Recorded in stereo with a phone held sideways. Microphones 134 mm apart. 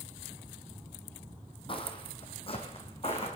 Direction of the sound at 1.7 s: 40° left (ahead or behind).